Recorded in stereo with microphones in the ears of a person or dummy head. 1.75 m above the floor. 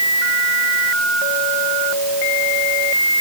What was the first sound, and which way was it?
Only background noise.